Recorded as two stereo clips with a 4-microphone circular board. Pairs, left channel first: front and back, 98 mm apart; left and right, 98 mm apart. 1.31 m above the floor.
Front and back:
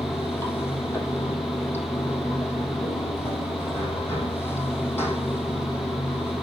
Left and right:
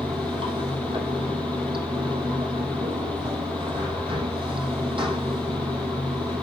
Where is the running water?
65° right, 4.5 m.